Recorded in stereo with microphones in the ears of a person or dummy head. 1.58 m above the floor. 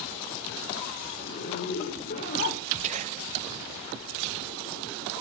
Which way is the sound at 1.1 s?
40° left (ahead or behind).